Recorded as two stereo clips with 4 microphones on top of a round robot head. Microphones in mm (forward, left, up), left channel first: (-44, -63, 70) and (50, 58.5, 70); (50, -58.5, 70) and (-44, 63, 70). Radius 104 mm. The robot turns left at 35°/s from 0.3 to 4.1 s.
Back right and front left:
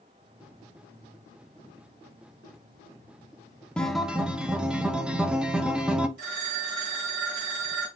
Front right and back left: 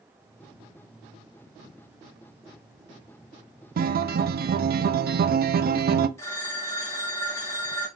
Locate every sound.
3.8 s a guitar: 150° left, 0.5 m; by 6.1 s 135° left, 0.5 m
6.2 s a phone ringing: 20° left, 1.4 m